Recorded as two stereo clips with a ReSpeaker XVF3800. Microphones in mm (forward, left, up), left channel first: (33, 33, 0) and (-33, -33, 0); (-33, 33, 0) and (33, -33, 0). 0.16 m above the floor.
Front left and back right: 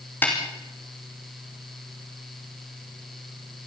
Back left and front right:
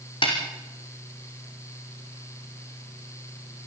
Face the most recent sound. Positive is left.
turn(degrees=115)